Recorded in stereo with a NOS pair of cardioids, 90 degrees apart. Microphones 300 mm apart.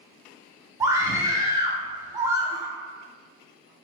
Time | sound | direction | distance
0.8 | a scream | 10° right | 0.9 m